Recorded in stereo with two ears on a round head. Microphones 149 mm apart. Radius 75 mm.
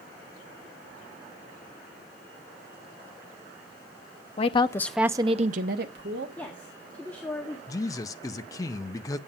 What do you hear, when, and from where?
4.4 s a woman speaking: 35° left (ahead or behind), 0.8 m; by 6.3 s 70° right (ahead or behind), 1.2 m
6.4 s a woman speaking: 10° left (ahead or behind), 1.7 m
7.7 s a man speaking: 20° left (ahead or behind), 0.5 m